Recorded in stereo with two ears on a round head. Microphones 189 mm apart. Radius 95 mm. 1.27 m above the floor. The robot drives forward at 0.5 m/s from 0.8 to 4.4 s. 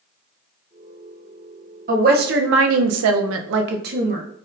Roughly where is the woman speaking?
Right.